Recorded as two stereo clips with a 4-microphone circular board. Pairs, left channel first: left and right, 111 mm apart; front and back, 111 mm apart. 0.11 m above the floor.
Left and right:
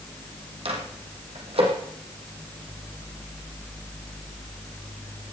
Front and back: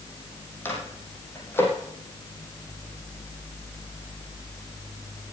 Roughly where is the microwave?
Right.